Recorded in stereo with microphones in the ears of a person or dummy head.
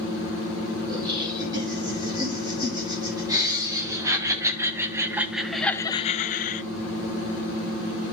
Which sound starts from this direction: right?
Laughter, at 0.9 s.